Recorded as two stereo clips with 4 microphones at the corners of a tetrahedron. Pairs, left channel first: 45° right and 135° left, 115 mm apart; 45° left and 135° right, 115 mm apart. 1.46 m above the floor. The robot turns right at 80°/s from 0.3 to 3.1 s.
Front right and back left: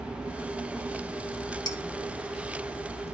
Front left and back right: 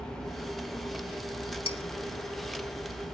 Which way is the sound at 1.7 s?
10° left.